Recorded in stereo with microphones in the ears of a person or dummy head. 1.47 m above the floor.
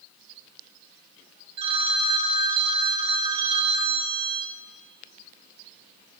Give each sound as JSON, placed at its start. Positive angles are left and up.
{"t": 1.6, "sound": "a phone ringing", "side_deg": -20, "distance_m": 0.5}